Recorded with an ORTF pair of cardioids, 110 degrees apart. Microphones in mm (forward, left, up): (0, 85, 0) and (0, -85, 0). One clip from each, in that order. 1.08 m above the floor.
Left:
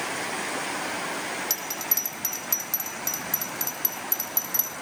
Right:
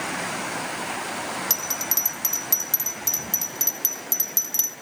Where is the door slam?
I don't hear a door slam.